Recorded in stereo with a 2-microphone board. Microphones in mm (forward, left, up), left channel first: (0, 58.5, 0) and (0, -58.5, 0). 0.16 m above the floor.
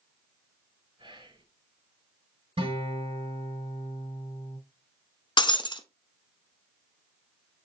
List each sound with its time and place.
1.0 s whispering: 45° right (ahead or behind), 1.9 m
2.6 s a guitar: 50° right (ahead or behind), 2.5 m
5.4 s breaking glass: 45° left (ahead or behind), 0.6 m